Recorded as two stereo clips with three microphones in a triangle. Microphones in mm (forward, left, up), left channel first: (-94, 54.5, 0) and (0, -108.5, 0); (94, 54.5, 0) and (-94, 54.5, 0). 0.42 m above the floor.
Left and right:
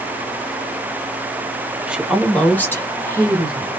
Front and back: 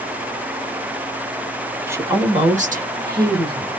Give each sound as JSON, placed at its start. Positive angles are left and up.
{"t": 1.9, "sound": "a woman speaking", "azimuth_deg": -130, "distance_m": 0.8}